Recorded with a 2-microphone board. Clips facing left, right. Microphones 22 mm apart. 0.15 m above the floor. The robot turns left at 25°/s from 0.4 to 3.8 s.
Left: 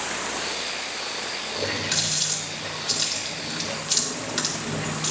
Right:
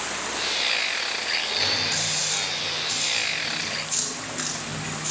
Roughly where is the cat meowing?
I don't hear a cat meowing.